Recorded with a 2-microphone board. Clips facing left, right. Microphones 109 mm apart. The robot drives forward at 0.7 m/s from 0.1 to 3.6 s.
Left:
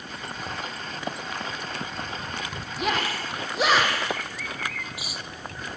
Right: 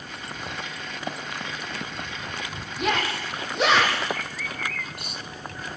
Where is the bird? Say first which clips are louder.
Right 1 dB; 5° left (ahead or behind), 0.8 m.